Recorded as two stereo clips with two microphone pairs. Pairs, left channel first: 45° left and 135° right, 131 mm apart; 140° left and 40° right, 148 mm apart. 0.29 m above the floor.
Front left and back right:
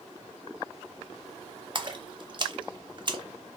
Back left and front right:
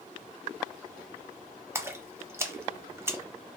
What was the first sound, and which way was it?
A splash, 105° right.